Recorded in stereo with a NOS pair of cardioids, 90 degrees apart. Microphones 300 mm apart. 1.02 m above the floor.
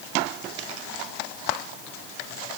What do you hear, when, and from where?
Only background noise.